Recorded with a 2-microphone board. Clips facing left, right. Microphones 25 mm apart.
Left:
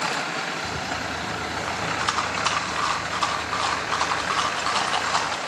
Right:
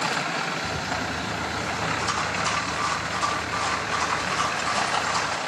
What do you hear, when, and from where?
0.6 s a rattle: 40° left (ahead or behind), 1.2 m